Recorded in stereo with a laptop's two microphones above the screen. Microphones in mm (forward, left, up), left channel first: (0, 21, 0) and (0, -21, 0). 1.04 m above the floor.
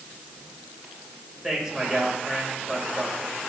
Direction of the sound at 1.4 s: 10° right (ahead or behind).